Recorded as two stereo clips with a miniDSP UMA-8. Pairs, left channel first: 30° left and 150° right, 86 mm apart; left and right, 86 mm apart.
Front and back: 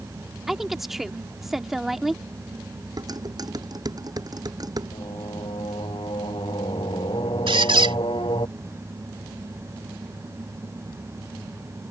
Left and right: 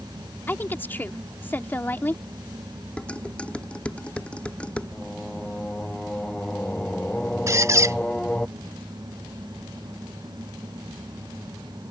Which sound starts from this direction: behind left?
A woman speaking, at 0.5 s.